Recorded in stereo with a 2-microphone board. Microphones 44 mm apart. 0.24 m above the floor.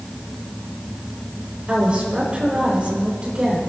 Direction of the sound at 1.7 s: 30° right (ahead or behind).